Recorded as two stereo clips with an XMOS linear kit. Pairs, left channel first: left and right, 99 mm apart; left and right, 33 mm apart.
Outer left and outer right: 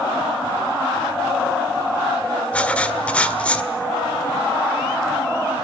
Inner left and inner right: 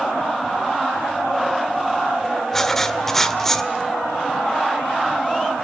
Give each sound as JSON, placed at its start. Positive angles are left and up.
{"t": 2.5, "sound": "writing", "side_deg": 15, "distance_m": 1.9}